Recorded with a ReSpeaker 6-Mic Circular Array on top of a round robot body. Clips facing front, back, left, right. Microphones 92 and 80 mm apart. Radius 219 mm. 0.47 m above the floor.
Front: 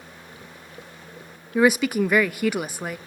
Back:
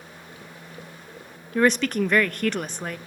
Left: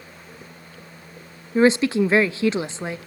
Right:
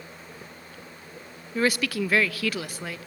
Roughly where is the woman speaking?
Left.